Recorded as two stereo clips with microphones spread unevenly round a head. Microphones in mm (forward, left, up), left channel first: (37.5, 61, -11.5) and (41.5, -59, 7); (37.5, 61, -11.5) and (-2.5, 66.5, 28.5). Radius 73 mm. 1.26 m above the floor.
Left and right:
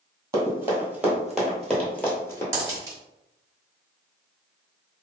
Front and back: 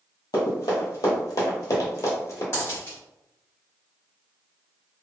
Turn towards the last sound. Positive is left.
turn(degrees=-105)